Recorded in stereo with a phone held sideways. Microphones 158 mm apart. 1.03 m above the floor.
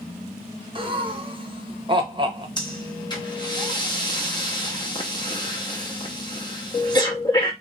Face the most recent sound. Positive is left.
turn(degrees=25)  # may be behind; listen again after turning